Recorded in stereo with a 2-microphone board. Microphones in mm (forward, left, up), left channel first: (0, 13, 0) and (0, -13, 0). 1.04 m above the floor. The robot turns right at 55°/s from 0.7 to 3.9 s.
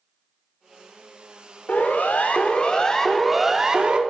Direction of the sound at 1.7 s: 75° left (ahead or behind).